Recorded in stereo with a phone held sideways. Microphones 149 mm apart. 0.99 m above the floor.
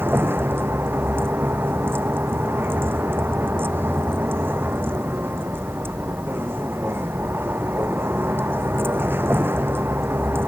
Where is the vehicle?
15° right (ahead or behind).